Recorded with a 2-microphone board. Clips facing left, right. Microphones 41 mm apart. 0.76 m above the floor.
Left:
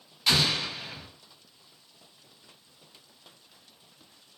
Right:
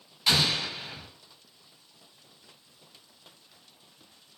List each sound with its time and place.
0.3 s an explosion: centre (ahead or behind), 1.5 m